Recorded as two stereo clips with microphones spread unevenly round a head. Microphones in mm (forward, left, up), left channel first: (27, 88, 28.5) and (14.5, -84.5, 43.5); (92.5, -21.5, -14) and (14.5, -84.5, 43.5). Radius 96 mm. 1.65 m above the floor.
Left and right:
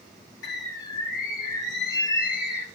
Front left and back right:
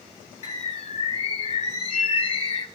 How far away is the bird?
About 5 m.